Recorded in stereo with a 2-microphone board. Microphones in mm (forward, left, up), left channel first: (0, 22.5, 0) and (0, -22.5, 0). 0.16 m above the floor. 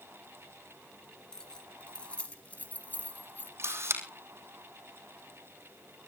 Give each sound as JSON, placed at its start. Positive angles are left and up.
{"t": 1.3, "sound": "keys jangling", "side_deg": 15, "distance_m": 2.0}
{"t": 3.6, "sound": "a camera shutter", "side_deg": -65, "distance_m": 3.5}